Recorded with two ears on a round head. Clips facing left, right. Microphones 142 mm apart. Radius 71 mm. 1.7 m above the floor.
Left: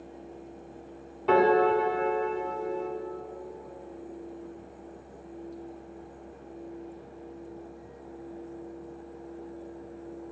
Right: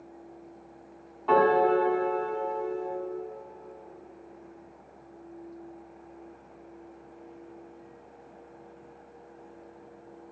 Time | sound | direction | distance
1.3 | a piano | 25° left (ahead or behind) | 1.8 m